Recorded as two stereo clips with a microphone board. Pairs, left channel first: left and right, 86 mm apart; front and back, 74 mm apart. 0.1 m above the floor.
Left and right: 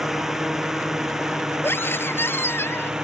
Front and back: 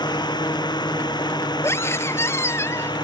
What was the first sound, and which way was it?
A drone, 5° right.